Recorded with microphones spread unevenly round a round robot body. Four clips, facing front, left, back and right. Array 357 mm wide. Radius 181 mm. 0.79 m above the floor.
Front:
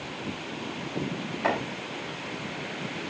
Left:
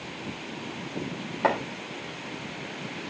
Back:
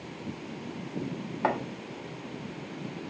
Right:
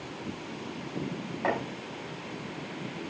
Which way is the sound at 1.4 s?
120° left.